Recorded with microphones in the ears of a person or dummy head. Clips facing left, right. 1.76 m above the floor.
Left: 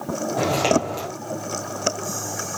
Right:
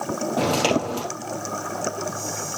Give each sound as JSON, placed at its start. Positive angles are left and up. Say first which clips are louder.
{"t": 0.4, "sound": "footsteps", "louder": "left 1 dB", "side_deg": -15, "distance_m": 4.0}